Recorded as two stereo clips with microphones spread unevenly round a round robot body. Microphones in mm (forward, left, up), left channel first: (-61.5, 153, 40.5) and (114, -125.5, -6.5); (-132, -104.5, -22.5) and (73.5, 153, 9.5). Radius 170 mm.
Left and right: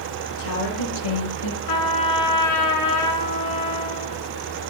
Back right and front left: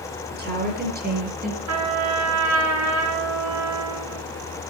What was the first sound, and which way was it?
A woman speaking, 115° left.